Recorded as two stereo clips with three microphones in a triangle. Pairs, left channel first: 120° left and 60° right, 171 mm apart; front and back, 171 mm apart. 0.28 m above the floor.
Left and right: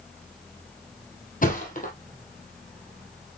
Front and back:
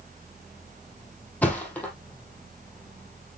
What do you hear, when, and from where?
1.4 s a thud: 80° left, 3 m